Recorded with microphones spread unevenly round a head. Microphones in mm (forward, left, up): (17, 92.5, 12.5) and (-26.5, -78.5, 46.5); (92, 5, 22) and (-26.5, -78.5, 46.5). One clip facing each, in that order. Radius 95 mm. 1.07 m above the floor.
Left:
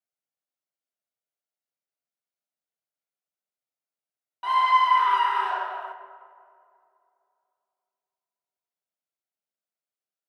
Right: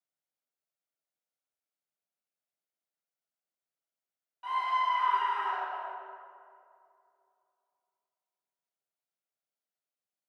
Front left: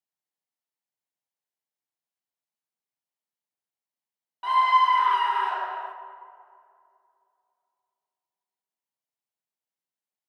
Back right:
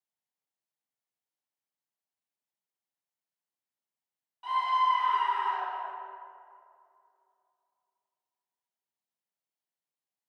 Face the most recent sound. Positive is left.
turn(degrees=70)